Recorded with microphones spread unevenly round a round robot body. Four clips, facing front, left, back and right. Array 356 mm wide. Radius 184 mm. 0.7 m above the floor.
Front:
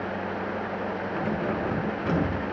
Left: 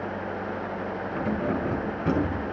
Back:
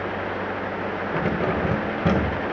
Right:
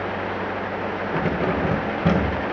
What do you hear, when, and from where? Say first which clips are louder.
1.1 s keys jangling: right 4 dB, back 5 dB; 130° right, 2 m; by 2.4 s 135° right, 3 m